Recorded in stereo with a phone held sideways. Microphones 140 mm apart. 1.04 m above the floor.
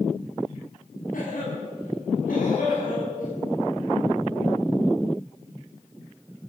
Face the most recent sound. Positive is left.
turn(degrees=75)  # may be behind; listen again after turning